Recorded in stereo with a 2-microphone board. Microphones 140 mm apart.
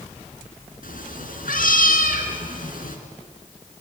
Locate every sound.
0.8 s a cat meowing: 85° left, 3 m